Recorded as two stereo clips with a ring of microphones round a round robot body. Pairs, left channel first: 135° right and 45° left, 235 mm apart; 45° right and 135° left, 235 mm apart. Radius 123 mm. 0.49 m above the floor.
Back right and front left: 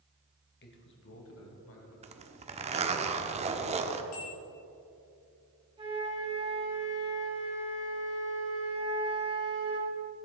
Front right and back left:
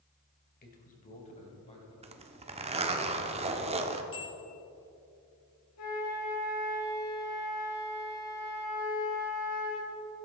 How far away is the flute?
About 4.5 m.